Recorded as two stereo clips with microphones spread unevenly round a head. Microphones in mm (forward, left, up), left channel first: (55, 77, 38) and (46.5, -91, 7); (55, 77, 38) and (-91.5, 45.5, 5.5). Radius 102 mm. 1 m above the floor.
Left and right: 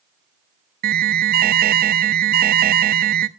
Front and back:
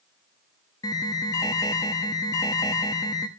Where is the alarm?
55° right, 0.5 m.